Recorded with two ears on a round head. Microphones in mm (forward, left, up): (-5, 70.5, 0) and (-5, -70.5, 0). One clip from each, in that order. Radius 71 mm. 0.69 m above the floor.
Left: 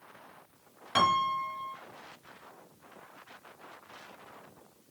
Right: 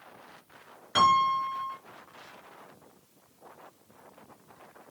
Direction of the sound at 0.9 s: 10° left (ahead or behind).